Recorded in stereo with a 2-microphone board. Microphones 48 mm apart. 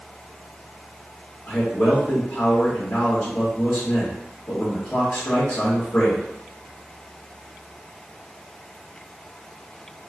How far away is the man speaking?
About 1.7 m.